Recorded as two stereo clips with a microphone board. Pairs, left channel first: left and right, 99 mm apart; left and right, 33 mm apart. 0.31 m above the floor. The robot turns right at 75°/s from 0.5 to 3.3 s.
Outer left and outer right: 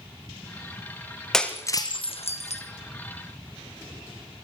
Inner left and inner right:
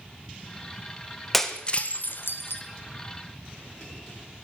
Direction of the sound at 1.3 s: 5° left (ahead or behind).